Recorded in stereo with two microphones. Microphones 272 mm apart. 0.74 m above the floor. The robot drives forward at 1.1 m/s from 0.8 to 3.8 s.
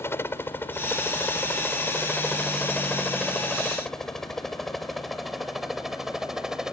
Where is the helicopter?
10° left (ahead or behind); by 6.7 s centre (ahead or behind).